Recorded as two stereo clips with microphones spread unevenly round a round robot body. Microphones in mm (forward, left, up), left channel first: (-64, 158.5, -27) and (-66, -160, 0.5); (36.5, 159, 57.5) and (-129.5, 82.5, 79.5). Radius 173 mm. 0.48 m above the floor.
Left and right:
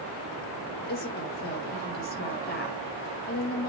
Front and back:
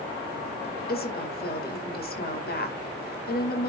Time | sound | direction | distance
0.9 | a woman speaking | 30° left | 2 m